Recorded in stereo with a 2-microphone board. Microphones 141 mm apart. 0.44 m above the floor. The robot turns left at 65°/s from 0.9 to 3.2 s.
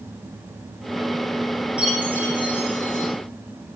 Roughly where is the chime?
Behind.